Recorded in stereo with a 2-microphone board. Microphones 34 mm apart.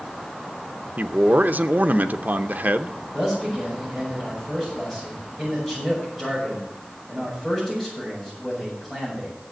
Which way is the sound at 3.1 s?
5° left (ahead or behind).